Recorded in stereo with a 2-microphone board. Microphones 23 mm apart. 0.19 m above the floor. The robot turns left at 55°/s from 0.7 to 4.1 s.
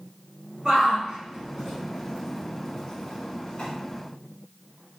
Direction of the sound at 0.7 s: 50° right (ahead or behind).